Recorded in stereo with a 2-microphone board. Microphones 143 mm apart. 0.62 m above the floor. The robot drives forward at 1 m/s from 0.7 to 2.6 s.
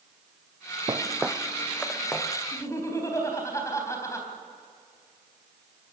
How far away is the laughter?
About 3.5 m.